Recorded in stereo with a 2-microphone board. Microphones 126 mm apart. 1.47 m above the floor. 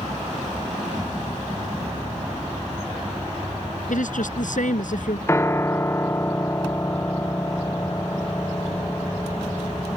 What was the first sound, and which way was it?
A woman speaking, 85° left.